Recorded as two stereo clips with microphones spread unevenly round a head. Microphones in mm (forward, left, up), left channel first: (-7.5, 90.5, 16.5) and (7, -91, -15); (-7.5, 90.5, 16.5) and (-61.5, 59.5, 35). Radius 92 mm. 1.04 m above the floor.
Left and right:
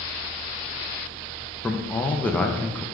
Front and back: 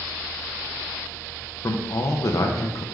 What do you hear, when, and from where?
1.6 s a man speaking: 10° left, 0.7 m